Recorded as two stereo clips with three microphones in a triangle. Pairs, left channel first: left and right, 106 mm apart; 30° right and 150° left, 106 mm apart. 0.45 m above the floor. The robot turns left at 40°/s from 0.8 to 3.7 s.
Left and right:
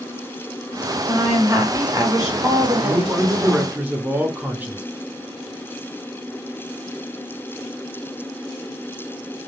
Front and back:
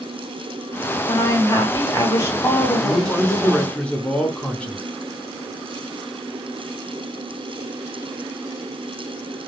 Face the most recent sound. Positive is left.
turn(degrees=-85)